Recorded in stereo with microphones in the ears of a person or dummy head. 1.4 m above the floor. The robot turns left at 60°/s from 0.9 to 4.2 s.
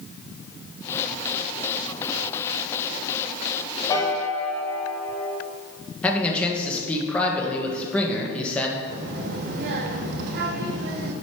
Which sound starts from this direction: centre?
A man speaking, at 6.0 s.